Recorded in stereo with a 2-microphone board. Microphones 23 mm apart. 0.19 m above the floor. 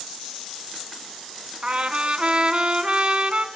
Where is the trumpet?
40° right (ahead or behind), 1.5 m.